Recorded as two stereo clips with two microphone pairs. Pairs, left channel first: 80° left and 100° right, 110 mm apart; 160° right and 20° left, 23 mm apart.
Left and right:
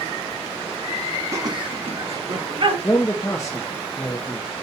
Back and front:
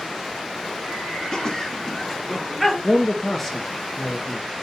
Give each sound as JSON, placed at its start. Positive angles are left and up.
{"t": 1.3, "sound": "laughter", "azimuth_deg": -145, "distance_m": 0.9}
{"t": 2.8, "sound": "a man speaking", "azimuth_deg": 135, "distance_m": 0.6}